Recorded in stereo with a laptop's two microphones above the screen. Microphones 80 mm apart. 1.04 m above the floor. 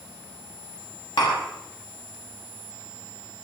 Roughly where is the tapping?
Left.